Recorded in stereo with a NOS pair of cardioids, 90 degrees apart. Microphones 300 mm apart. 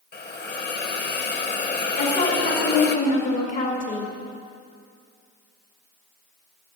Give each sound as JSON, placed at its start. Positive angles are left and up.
{"t": 0.1, "sound": "a hiss", "azimuth_deg": 35, "distance_m": 1.1}
{"t": 2.0, "sound": "a woman speaking", "azimuth_deg": 60, "distance_m": 2.5}